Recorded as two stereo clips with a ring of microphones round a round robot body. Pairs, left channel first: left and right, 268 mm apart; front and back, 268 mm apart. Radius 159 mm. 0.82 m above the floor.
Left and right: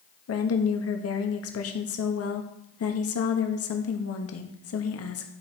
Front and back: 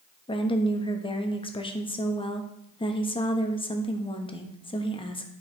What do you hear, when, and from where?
0.3 s a woman speaking: 70° left, 1.1 m